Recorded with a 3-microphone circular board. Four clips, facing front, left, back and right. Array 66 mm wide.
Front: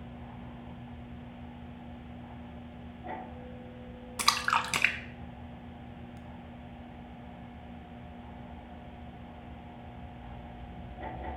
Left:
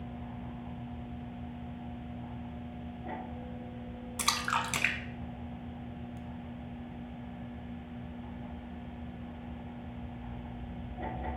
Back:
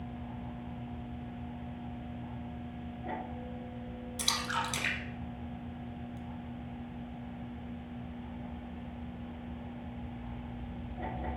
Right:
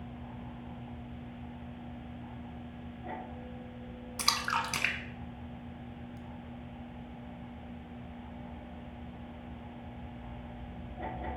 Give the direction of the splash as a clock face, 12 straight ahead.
12 o'clock.